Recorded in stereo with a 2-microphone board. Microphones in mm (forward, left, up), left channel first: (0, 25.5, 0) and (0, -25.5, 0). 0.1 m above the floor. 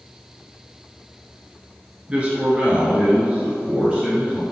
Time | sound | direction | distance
2.1 | a man speaking | 20° right (ahead or behind) | 1.3 m